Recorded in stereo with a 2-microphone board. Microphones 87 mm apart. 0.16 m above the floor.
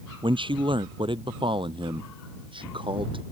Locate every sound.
0.2 s a man speaking: 75° right (ahead or behind); by 3.2 s 80° right